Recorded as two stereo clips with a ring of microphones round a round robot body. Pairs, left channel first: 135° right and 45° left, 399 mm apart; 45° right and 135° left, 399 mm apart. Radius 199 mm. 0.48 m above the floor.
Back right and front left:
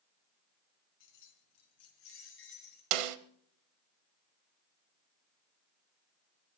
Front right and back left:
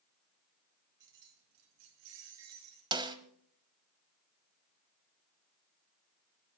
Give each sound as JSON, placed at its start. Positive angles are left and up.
{"t": 1.0, "sound": "keys jangling", "azimuth_deg": 180, "distance_m": 3.5}
{"t": 2.9, "sound": "a snare drum", "azimuth_deg": 55, "distance_m": 1.0}